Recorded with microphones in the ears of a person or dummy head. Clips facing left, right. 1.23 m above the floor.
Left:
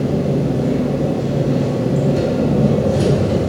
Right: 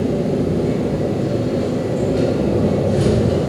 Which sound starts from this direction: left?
An engine running, at 0.0 s.